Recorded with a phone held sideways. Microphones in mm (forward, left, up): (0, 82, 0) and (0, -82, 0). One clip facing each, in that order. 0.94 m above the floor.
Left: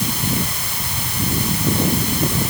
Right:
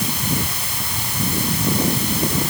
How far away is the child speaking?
I don't hear a child speaking.